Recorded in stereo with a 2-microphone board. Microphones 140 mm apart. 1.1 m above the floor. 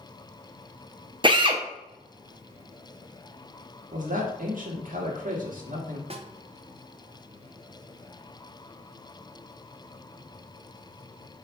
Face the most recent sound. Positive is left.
turn(degrees=-45)  # may be behind; listen again after turning